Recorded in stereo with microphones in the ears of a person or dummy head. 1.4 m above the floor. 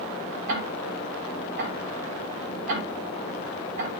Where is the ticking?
70° right (ahead or behind), 5.5 m.